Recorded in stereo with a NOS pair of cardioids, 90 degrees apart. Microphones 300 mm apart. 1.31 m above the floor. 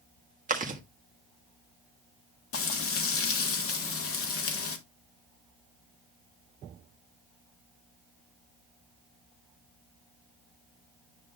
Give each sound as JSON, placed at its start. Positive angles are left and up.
{"t": 0.5, "sound": "chewing", "azimuth_deg": -25, "distance_m": 1.7}
{"t": 2.5, "sound": "frying", "azimuth_deg": 45, "distance_m": 1.7}